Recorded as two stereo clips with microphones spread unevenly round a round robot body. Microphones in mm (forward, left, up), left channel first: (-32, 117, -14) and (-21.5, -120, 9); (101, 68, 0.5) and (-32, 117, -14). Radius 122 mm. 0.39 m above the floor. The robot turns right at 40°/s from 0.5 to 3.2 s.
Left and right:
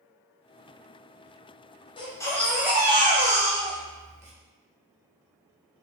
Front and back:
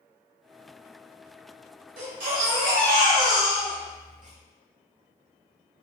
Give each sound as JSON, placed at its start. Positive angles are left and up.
{"t": 2.0, "sound": "a baby crying", "azimuth_deg": 160, "distance_m": 0.9}